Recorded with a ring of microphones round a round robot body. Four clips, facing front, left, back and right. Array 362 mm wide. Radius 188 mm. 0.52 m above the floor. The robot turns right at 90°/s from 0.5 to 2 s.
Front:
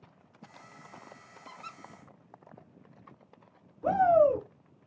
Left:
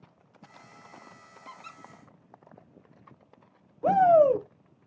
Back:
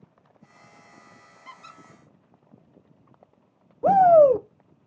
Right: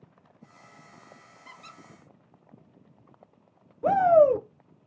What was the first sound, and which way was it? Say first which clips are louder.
A squeak: left 3 dB, back 1 dB; 130° right.